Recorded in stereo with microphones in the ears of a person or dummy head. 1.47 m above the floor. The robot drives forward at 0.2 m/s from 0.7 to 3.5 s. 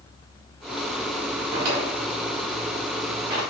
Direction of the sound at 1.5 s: 30° right (ahead or behind).